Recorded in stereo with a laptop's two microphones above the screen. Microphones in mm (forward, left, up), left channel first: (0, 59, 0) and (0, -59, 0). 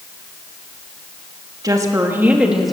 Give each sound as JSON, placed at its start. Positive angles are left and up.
{"t": 1.6, "sound": "a woman speaking", "side_deg": -30, "distance_m": 1.5}